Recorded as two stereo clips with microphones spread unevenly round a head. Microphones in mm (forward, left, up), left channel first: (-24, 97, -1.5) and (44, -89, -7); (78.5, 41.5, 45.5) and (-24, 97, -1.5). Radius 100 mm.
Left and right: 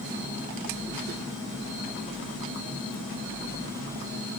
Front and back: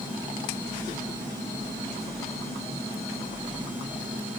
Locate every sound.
Only background noise.